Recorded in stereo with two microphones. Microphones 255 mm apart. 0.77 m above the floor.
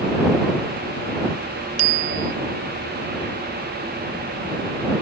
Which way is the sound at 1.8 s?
80° right.